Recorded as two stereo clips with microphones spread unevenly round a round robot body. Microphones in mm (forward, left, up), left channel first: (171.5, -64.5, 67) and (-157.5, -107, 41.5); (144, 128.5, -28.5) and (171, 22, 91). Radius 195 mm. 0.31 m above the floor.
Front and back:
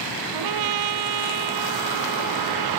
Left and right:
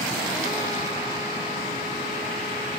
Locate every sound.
0.3 s a trumpet: 160° right